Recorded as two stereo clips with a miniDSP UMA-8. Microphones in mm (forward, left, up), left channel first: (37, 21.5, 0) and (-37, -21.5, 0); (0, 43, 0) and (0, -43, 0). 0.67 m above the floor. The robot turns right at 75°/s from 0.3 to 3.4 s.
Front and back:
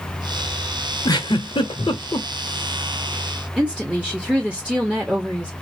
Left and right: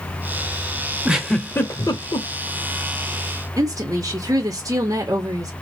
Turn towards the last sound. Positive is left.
turn(degrees=-80)